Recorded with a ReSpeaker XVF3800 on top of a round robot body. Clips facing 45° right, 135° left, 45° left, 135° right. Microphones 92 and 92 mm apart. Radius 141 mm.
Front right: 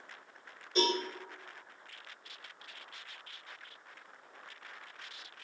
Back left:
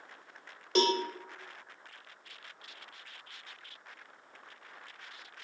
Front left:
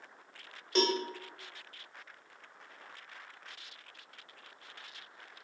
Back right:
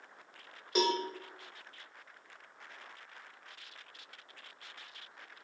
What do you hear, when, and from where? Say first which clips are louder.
0.8 s a cowbell: back left 3 dB, even; 145° left, 0.6 m